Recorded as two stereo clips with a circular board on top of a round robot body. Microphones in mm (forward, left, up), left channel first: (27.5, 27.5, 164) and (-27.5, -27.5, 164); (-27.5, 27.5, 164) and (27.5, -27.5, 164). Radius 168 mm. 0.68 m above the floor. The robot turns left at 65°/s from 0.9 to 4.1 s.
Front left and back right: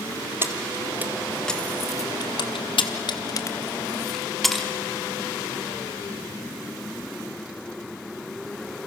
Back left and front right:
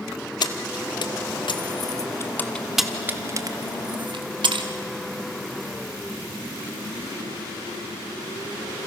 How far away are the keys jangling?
About 1.1 m.